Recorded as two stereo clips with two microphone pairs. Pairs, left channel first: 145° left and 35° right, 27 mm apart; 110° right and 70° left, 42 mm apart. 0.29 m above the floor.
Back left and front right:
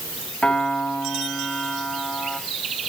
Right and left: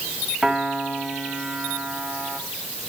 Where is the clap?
No clap in this recording.